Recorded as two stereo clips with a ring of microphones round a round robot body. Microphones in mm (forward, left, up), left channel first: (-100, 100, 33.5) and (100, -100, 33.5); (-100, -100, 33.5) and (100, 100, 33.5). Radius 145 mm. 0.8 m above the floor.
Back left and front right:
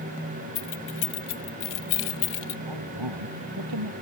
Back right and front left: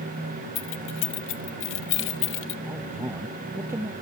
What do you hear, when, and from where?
0.6 s keys jangling: straight behind
2.7 s a man speaking: 35° right